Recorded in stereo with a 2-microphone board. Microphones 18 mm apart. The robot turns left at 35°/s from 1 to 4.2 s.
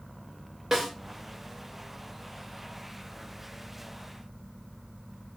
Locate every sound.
0.7 s a snare drum: 15° right (ahead or behind), 1.0 m